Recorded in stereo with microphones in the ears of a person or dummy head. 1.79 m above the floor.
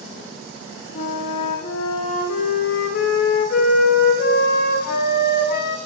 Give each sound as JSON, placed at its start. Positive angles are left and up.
{"t": 0.9, "sound": "a flute", "side_deg": 60, "distance_m": 0.9}